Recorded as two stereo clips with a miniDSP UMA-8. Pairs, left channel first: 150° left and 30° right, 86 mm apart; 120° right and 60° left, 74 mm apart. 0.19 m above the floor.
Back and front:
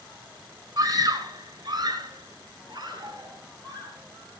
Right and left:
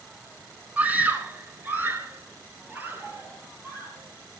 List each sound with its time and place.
0.8 s a scream: 5° right, 2.0 m; by 4.0 s straight ahead, 4.5 m